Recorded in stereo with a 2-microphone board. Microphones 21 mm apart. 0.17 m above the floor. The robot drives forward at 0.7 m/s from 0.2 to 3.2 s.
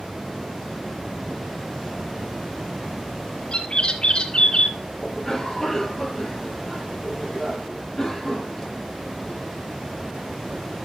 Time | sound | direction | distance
3.5 | a bird | 50° left (ahead or behind) | 2 m
5.0 | a cough | 10° left (ahead or behind) | 6 m